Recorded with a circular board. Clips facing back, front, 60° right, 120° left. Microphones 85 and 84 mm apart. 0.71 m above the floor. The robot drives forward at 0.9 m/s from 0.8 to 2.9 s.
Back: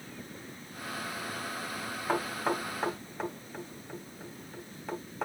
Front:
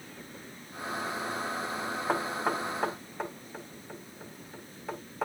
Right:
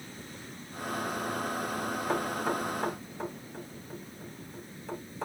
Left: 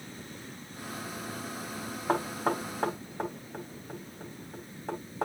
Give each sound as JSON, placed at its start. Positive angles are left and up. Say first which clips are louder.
{"t": 2.1, "sound": "knocking", "louder": "even, left 3 dB", "azimuth_deg": 80, "distance_m": 3.0}